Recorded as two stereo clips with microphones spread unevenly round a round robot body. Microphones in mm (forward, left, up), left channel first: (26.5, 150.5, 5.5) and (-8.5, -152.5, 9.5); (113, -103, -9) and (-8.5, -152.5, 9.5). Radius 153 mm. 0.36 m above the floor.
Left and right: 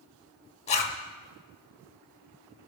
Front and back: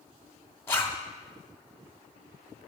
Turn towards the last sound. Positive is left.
turn(degrees=55)